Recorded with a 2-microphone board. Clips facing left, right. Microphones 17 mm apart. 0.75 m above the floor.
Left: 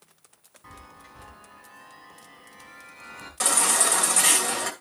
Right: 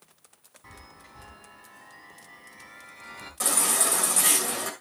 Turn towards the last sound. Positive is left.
turn(degrees=30)  # may be behind; listen again after turning